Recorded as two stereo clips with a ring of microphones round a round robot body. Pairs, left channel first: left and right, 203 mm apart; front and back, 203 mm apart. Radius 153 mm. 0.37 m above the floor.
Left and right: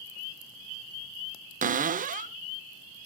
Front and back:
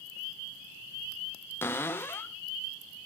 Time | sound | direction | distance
1.6 | a cupboard door | 75° right | 0.6 m